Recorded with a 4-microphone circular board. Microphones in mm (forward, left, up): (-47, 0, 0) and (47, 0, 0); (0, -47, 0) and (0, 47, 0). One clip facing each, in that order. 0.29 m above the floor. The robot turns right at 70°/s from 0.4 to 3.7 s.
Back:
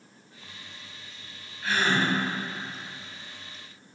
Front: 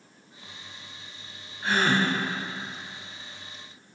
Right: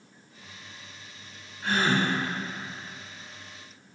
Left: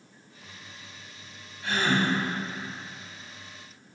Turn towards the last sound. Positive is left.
turn(degrees=85)